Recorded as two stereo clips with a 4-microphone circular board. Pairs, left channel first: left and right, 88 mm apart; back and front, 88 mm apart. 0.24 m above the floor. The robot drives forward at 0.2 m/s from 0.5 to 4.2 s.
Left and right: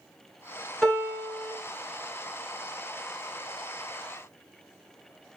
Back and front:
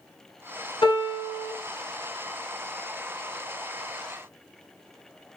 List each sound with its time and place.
0.8 s a piano: 175° left, 1.4 m